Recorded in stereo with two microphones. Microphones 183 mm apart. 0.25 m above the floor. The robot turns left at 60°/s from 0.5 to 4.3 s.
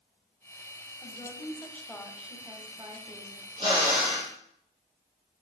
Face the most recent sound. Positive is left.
turn(degrees=170)